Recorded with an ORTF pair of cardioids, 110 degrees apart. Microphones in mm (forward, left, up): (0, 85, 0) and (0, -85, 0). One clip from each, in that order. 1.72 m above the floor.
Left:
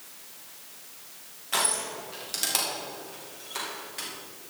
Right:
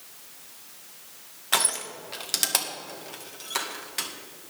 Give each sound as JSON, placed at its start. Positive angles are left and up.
{"t": 1.5, "sound": "crushing", "azimuth_deg": -45, "distance_m": 2.0}